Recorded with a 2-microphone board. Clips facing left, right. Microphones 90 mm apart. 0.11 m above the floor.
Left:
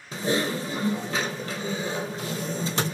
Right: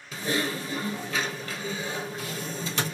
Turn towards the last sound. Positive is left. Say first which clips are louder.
# left 3 dB
turn(degrees=35)  # may be behind; listen again after turning